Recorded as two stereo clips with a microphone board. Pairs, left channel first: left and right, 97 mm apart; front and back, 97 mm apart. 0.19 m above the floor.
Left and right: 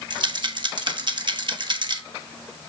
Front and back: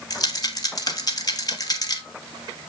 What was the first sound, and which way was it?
A rattle, 50° right.